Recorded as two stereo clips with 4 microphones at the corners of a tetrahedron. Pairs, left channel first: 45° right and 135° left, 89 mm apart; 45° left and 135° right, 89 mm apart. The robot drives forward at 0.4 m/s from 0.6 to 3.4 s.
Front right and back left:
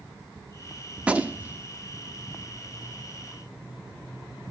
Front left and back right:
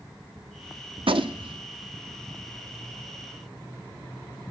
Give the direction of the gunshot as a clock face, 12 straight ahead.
5 o'clock.